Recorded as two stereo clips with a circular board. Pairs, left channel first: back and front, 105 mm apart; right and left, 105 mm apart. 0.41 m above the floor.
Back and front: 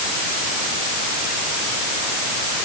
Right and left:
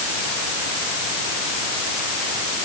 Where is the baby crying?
I don't hear a baby crying.